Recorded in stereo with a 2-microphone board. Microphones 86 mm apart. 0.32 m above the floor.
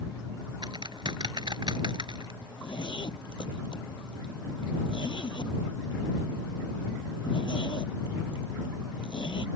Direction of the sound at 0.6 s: 60° right (ahead or behind).